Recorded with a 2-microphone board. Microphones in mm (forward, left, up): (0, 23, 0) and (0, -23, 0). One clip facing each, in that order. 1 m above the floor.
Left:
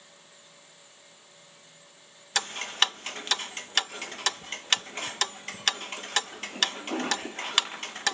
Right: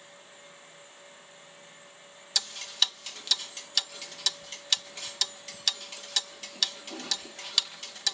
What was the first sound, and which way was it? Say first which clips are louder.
Ticking: left 5 dB; 45° left (ahead or behind).